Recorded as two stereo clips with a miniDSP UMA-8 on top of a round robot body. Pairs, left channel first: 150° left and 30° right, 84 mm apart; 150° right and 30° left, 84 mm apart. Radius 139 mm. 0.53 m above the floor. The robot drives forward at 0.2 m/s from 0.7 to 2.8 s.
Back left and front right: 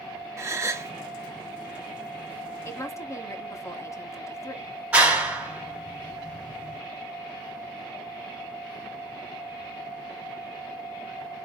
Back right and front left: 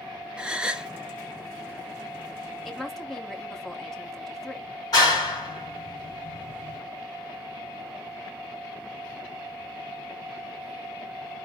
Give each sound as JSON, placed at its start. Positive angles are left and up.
{"t": 0.4, "sound": "a gasp", "azimuth_deg": -40, "distance_m": 0.8}
{"t": 2.6, "sound": "a woman speaking", "azimuth_deg": 125, "distance_m": 1.1}
{"t": 4.9, "sound": "a clap", "azimuth_deg": -105, "distance_m": 3.5}